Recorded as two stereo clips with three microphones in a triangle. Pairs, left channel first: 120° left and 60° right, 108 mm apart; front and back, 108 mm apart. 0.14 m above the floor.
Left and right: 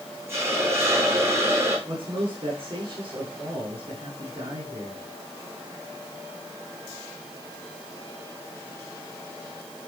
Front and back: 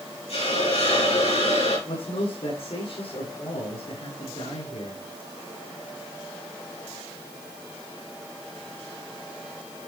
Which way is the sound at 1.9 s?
25° right.